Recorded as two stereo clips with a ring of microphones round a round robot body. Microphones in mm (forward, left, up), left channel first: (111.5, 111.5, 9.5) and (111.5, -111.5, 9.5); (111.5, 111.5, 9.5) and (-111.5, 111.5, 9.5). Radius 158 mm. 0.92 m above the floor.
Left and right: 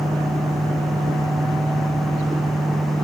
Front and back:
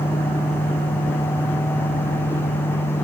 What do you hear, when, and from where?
Only background noise.